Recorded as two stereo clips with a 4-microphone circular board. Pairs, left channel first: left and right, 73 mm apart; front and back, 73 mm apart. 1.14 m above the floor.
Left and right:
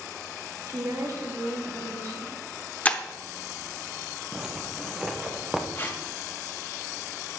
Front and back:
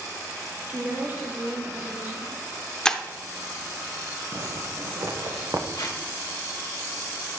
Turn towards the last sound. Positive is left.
turn(degrees=30)